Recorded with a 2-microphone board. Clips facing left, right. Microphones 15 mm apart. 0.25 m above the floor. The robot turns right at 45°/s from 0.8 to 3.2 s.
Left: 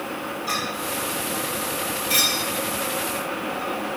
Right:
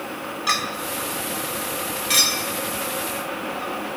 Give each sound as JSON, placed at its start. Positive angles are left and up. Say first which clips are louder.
{"t": 0.5, "sound": "a clink", "louder": "right 4 dB", "side_deg": -55, "distance_m": 1.2}